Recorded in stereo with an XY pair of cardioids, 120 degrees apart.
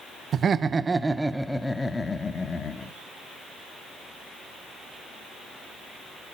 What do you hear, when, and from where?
0.3 s laughter: 45° right, 0.9 m; by 2.9 s 35° left, 1.7 m